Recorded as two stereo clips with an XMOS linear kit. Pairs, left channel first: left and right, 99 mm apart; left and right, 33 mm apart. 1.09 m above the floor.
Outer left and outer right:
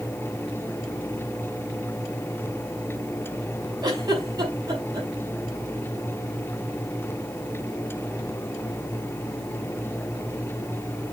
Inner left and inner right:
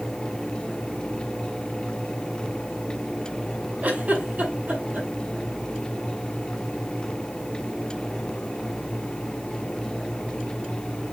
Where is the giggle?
45° right (ahead or behind), 5 m.